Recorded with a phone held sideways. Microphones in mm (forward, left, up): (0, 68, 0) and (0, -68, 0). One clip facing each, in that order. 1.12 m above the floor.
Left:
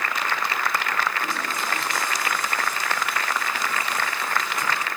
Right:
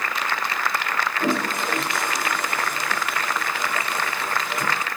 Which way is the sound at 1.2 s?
55° right (ahead or behind).